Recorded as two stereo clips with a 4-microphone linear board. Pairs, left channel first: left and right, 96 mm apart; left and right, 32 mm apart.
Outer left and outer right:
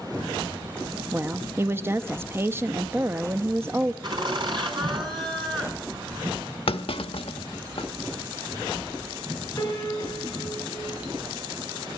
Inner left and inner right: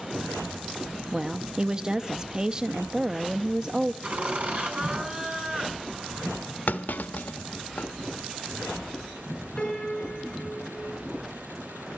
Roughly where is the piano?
Left.